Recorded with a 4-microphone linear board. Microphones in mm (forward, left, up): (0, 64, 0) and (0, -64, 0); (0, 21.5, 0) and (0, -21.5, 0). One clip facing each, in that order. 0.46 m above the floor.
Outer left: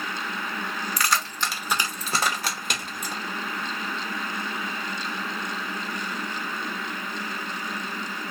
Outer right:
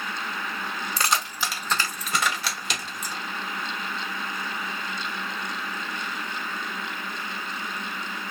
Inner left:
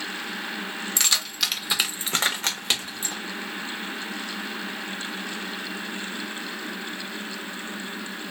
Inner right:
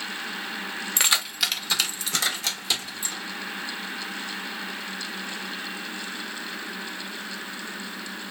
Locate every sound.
1.0 s keys jangling: 30° right (ahead or behind), 0.6 m; by 3.1 s 60° left (ahead or behind), 1.1 m